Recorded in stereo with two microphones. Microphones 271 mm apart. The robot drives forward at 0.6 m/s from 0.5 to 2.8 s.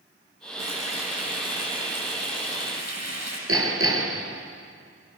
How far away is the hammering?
About 4 m.